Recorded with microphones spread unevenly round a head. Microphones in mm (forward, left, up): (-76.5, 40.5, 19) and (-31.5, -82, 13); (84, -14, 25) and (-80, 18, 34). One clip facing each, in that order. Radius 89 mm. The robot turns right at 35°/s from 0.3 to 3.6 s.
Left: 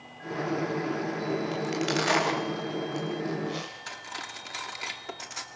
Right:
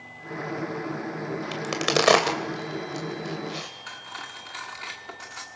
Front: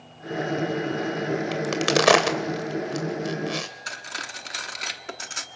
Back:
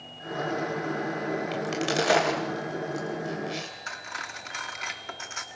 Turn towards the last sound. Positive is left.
turn(degrees=45)